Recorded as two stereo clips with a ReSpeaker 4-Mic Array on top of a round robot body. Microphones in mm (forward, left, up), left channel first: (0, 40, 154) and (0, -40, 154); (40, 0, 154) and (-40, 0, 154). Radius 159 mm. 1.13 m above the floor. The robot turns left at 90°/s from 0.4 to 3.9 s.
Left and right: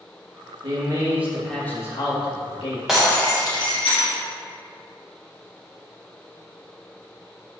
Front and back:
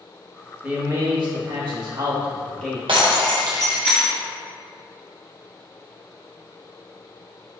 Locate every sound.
0.6 s a man speaking: 105° right, 2 m; by 2.8 s 60° left, 2 m
2.9 s breaking glass: 175° right, 1.3 m; by 4.2 s 95° left, 1.3 m